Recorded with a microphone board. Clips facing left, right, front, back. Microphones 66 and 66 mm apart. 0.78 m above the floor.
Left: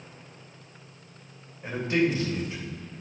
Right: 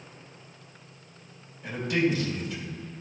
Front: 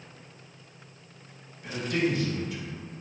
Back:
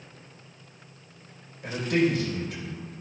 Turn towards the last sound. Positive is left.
turn(degrees=150)